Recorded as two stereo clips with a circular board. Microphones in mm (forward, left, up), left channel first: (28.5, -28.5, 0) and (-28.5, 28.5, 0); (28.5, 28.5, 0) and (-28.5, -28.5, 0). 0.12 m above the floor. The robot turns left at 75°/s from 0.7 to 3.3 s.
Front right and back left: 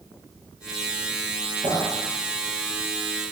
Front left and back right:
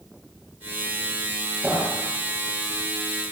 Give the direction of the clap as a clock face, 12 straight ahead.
7 o'clock.